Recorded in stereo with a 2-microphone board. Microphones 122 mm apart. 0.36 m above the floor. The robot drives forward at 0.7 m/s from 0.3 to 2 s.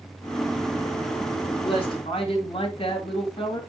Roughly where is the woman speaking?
Left.